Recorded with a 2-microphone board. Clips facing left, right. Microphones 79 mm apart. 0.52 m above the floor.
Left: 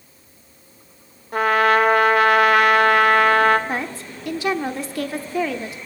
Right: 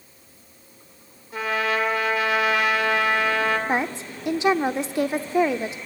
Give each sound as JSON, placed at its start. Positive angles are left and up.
{"t": 1.3, "sound": "a trumpet", "side_deg": 60, "distance_m": 1.7}
{"t": 3.7, "sound": "a woman speaking", "side_deg": -20, "distance_m": 1.1}